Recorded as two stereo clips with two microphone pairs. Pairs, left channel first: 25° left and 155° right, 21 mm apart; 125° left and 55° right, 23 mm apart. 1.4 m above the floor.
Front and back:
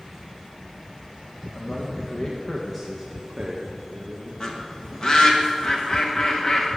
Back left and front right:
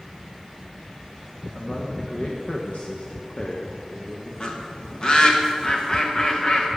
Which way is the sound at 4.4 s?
75° left.